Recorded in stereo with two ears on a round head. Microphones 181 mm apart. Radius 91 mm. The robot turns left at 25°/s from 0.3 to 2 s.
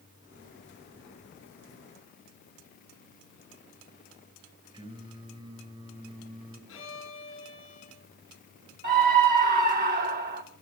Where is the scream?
50° right (ahead or behind), 3.5 m.